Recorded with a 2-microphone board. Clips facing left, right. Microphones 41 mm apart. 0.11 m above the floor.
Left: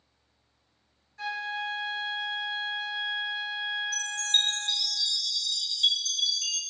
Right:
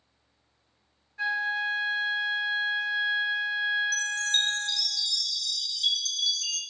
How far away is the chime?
About 0.5 m.